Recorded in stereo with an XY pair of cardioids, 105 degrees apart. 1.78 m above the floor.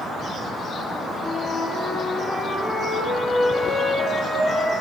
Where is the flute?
25° left, 1.6 m.